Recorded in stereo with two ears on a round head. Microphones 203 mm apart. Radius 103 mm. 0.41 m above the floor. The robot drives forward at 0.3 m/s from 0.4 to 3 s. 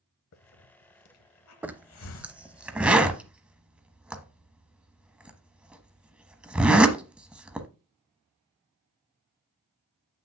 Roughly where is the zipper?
Centre.